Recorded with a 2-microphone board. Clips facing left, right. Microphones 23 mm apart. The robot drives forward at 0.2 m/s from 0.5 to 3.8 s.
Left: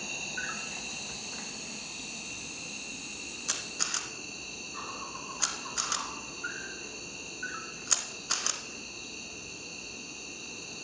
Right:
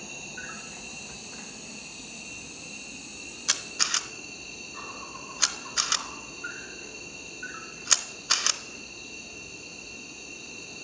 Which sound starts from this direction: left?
An insect, at 0.0 s.